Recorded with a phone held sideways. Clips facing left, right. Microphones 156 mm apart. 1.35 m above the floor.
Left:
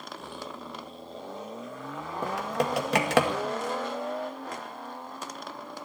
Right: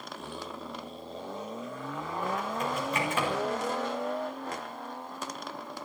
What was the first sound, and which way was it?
Typing on a keyboard, 85° left.